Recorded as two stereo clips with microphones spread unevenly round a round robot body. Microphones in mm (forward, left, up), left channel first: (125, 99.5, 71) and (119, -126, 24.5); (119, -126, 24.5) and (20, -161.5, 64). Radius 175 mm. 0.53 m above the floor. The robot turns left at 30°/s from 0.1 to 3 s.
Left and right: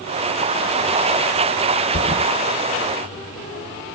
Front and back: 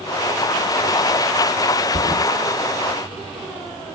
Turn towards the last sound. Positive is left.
turn(degrees=120)